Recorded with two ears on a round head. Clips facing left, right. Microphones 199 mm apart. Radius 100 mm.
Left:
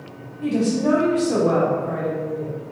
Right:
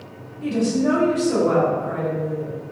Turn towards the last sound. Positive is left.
turn(degrees=-5)  # may be behind; listen again after turning